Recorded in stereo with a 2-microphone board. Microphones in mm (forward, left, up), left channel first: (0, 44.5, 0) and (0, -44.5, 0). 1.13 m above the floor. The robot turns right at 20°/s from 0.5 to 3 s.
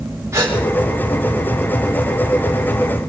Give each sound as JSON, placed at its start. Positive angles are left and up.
{"t": 0.3, "sound": "a gasp", "side_deg": -35, "distance_m": 5.0}